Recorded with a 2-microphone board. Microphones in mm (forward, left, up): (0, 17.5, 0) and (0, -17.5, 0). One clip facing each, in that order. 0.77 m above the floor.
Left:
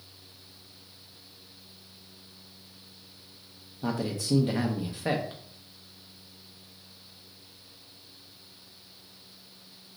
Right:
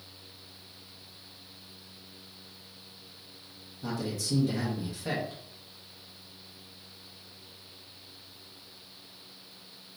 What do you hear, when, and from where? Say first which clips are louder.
3.8 s a man speaking: left 3 dB; 35° left (ahead or behind), 0.5 m